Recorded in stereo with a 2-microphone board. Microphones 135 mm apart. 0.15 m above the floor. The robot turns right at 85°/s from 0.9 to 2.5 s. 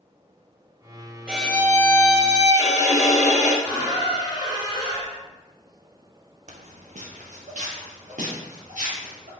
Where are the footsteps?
60° right (ahead or behind), 0.6 m; by 9.3 s 70° right (ahead or behind), 3.5 m.